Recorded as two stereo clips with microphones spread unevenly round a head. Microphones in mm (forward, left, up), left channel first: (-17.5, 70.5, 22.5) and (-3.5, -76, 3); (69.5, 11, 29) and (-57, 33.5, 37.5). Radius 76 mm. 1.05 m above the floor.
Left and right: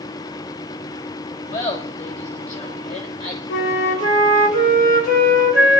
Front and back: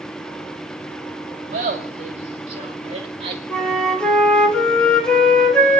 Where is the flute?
70° left, 3.5 m.